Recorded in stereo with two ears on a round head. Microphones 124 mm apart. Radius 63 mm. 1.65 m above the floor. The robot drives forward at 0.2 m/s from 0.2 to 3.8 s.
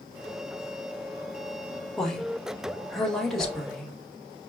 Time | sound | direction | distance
2.0 | a woman speaking | 5° left (ahead or behind) | 1.6 m
3.4 | a whoosh | centre (ahead or behind) | 2 m